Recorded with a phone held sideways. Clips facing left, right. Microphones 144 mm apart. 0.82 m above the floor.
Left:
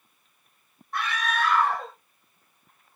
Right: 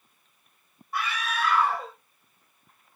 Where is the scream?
5° right (ahead or behind), 1.0 m.